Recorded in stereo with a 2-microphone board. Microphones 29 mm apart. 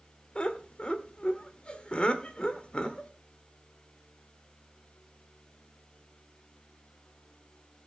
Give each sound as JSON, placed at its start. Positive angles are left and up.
{"t": 0.3, "sound": "laughter", "side_deg": 40, "distance_m": 1.3}